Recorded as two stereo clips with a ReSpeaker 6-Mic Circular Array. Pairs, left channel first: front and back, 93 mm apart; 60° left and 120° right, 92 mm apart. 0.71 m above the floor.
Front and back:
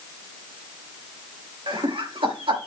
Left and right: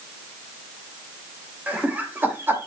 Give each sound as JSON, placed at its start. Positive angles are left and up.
{"t": 1.7, "sound": "laughter", "azimuth_deg": 170, "distance_m": 3.0}